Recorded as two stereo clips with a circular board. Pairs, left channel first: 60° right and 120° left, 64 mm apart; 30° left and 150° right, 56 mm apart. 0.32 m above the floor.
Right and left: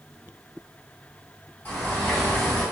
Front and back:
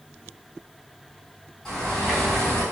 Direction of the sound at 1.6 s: 35° right.